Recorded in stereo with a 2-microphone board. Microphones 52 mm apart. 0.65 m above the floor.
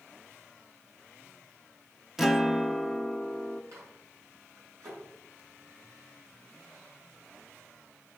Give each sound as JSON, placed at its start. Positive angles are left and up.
{"t": 2.2, "sound": "a guitar", "side_deg": -5, "distance_m": 0.8}
{"t": 3.7, "sound": "a microwave", "side_deg": -70, "distance_m": 6.0}